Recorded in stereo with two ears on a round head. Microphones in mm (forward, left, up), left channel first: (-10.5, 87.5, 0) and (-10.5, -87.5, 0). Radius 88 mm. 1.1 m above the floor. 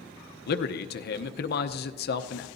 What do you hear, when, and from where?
0.5 s a man speaking: 50° left (ahead or behind), 0.8 m